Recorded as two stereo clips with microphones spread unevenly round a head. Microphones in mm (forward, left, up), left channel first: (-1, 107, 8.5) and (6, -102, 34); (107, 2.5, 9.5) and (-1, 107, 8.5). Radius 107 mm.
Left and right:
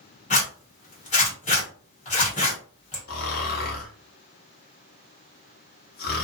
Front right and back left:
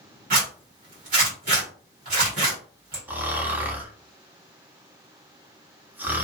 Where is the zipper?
155° left, 1.6 m.